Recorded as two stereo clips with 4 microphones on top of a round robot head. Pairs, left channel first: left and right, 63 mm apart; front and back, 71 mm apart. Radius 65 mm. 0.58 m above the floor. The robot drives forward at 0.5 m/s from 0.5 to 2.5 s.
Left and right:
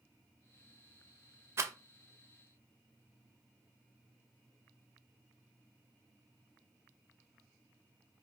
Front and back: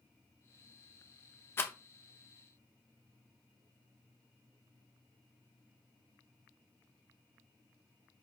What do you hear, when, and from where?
1.6 s a rattle: 55° right, 0.5 m; by 1.7 s 60° right, 0.5 m